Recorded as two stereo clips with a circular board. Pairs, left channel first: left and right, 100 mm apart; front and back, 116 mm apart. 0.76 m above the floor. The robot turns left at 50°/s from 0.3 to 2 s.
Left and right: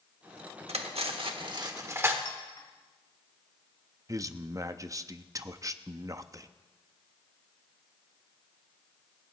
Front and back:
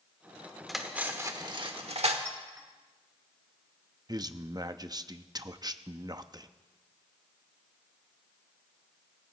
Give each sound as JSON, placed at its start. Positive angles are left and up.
{"t": 0.7, "sound": "cutlery clinking", "azimuth_deg": -90, "distance_m": 1.2}
{"t": 2.2, "sound": "a clink", "azimuth_deg": 120, "distance_m": 2.0}
{"t": 4.1, "sound": "a man speaking", "azimuth_deg": -135, "distance_m": 0.6}